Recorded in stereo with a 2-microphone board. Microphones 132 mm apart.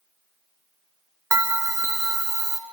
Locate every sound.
1.3 s a bell: 20° right (ahead or behind), 0.9 m